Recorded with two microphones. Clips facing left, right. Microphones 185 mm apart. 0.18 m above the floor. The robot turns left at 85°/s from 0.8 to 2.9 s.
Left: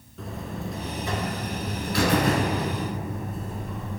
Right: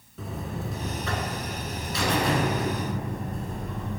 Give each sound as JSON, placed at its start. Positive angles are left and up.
{"t": 0.2, "sound": "a buzzer", "azimuth_deg": -175, "distance_m": 1.2}